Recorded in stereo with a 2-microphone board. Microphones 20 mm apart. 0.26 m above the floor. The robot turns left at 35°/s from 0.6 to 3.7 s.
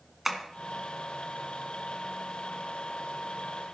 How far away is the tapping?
About 1.9 m.